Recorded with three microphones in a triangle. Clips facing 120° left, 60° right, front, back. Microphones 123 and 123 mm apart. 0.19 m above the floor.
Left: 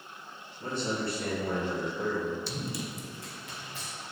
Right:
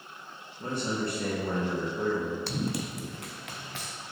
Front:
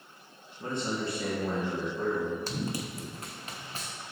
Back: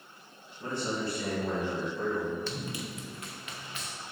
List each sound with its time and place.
0.6 s a man speaking: 60° right, 2.5 m
2.5 s running footsteps: 45° right, 0.6 m; by 3.9 s 55° right, 1.4 m